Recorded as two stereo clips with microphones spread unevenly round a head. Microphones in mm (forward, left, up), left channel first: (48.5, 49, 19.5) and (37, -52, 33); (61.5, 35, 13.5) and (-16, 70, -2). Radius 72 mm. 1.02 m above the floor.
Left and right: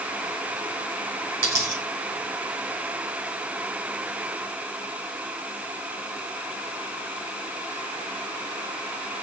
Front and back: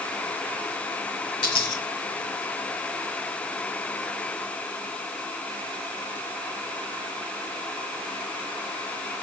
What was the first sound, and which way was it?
A dropped coin, 70° right.